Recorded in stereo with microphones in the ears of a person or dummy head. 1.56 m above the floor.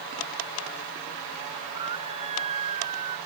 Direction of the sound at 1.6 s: 25° right (ahead or behind).